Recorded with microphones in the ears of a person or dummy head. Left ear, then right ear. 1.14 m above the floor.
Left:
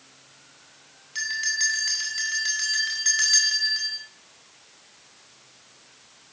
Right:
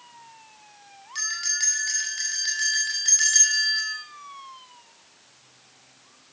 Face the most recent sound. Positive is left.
turn(degrees=0)  # may be behind; listen again after turning